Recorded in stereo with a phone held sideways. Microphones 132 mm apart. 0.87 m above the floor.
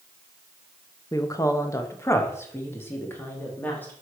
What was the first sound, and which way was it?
A woman speaking, 25° left (ahead or behind).